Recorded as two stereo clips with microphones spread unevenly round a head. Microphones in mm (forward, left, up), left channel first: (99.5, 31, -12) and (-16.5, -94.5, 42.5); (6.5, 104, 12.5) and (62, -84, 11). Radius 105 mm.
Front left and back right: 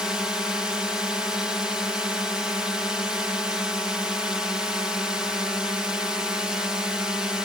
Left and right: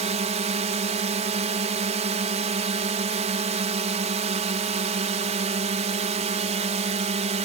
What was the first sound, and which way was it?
A drone, 30° right.